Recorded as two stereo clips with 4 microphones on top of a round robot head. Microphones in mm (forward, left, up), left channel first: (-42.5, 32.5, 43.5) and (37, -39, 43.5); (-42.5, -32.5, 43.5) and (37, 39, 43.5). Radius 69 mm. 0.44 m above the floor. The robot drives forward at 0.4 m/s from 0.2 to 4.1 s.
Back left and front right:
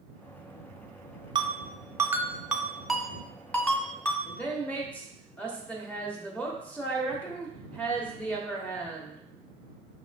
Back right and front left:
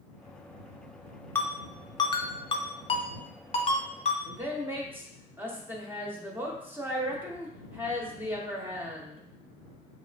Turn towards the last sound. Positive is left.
turn(degrees=80)